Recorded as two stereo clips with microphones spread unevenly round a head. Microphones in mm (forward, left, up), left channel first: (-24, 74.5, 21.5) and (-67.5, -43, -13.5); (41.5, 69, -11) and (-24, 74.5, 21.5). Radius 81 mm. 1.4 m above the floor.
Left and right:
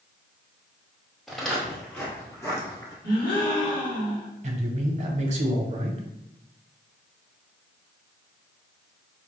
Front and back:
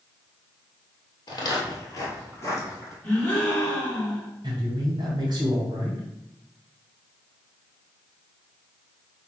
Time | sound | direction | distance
1.3 | footsteps | 15° left | 1.5 m
3.0 | a gasp | 60° left | 1.9 m
4.4 | a man speaking | 140° right | 1.2 m